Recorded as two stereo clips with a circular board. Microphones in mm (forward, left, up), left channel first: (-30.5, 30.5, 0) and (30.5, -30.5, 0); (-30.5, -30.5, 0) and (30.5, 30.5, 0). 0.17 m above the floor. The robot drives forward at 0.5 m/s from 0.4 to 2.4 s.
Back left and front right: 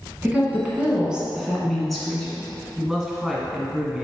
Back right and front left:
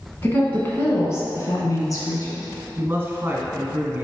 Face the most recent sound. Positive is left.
turn(degrees=25)